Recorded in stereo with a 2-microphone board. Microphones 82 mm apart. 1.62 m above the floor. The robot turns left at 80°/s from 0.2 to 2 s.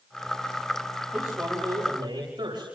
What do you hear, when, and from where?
1.1 s a man speaking: 15° right, 9 m; by 2.7 s 85° right, 9 m